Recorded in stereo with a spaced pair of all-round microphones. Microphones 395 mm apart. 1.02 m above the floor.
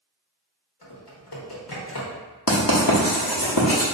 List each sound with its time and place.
0.8 s typing on a keyboard: 65° left (ahead or behind), 1.0 m
2.5 s writing: 60° left (ahead or behind), 0.9 m